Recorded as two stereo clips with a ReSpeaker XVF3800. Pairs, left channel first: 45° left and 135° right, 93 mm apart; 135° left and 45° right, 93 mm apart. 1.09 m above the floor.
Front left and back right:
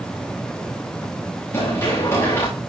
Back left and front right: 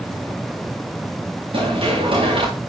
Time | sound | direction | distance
1.5 | running footsteps | 15° right | 9.5 m